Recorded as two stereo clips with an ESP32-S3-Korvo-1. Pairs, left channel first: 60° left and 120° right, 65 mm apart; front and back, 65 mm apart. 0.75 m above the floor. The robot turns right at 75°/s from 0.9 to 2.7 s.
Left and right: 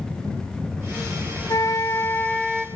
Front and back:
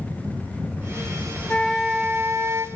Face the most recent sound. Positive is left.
turn(degrees=165)